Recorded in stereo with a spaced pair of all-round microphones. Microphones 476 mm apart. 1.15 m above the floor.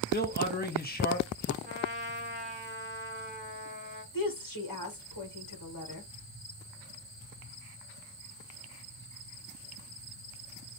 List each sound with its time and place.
0.1 s a man speaking: 20° left (ahead or behind), 1.3 m
1.6 s a trumpet: 20° right (ahead or behind), 1.4 m
4.1 s a woman speaking: 40° left (ahead or behind), 1.4 m